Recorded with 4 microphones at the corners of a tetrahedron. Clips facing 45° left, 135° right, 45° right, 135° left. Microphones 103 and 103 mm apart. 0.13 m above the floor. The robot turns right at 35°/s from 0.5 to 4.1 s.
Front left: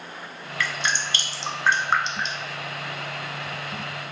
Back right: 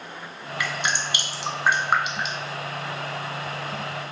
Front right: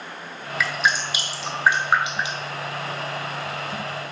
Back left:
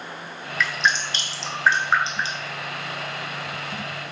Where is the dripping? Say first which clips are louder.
Even, even; 120° right, 0.6 m; by 2.5 s 55° right, 0.6 m.